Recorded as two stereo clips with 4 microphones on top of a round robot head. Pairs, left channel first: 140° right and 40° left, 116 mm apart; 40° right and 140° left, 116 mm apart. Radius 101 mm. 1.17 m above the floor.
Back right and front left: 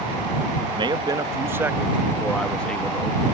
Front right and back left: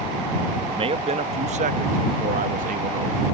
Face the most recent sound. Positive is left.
turn(degrees=150)